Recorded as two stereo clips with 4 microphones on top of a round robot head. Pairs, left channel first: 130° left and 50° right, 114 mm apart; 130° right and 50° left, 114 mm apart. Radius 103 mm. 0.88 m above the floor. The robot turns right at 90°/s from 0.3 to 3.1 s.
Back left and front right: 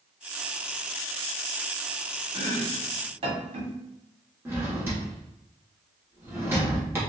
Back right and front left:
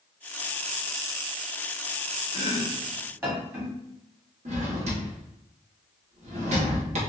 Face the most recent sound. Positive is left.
turn(degrees=20)